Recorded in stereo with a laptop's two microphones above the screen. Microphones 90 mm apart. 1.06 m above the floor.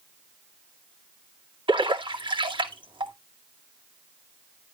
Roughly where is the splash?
Right.